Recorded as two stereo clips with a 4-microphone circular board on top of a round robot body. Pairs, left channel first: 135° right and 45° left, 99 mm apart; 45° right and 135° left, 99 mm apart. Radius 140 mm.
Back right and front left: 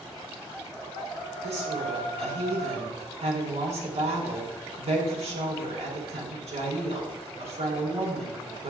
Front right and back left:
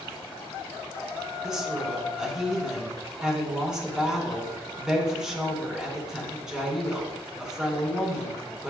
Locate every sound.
1.4 s a woman speaking: 50° left, 4.5 m